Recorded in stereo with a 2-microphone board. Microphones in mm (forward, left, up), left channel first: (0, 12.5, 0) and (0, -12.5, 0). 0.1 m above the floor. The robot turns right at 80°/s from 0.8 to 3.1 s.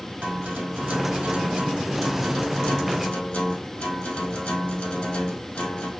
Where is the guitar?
100° right, 2.5 m; by 5.9 s 80° left, 2.5 m.